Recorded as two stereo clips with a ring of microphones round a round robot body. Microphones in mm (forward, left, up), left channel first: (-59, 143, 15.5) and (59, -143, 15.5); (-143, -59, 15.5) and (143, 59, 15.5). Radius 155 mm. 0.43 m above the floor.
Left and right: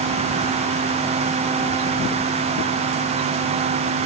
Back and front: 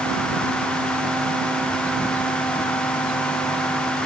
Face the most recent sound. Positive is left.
No sound to turn to.